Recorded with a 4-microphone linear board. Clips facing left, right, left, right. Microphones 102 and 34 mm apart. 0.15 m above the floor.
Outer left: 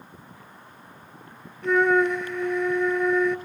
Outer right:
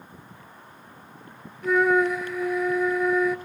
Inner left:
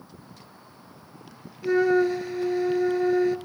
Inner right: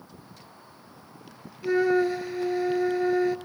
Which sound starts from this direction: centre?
A flute, at 1.6 s.